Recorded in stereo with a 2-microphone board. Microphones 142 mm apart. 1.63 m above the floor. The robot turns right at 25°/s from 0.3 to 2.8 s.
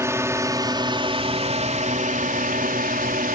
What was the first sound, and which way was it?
A drone, 160° right.